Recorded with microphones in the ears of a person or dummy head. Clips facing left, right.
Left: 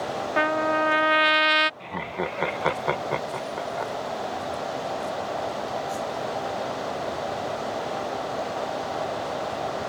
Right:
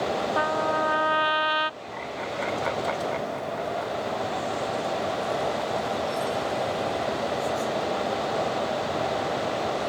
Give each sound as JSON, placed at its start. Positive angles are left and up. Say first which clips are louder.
{"t": 0.4, "sound": "a trumpet", "louder": "left 6 dB", "side_deg": 35}
{"t": 1.8, "sound": "laughter", "louder": "left 3 dB", "side_deg": 65}